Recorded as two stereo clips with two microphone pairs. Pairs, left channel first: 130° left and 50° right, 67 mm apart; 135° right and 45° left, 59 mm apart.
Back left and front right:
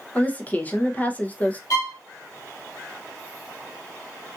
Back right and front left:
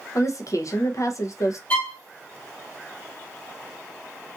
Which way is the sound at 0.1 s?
160° right.